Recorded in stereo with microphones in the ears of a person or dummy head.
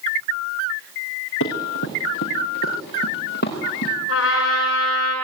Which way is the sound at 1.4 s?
70° left (ahead or behind).